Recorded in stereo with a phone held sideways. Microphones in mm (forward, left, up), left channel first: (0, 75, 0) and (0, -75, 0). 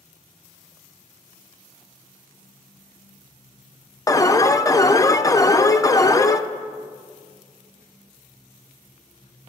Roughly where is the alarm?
Left.